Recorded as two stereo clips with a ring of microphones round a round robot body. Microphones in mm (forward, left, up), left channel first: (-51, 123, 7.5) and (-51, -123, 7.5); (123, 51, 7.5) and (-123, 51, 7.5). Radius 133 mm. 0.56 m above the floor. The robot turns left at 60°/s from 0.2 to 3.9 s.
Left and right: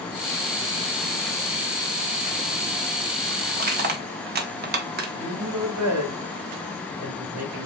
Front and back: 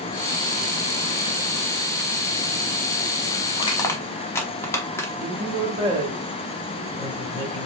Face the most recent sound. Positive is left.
turn(degrees=-105)